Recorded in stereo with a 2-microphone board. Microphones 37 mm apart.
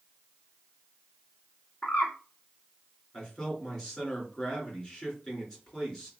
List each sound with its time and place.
1.8 s a bird: 30° left (ahead or behind), 1.1 m
3.1 s a man speaking: 15° left (ahead or behind), 2 m